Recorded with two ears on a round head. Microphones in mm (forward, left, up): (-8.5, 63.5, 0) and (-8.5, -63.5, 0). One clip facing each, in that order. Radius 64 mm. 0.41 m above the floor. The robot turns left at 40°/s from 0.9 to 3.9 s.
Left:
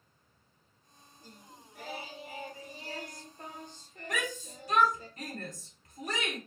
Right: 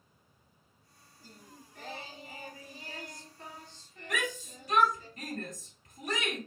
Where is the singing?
170° right, 0.7 m; by 5.1 s 85° left, 0.7 m.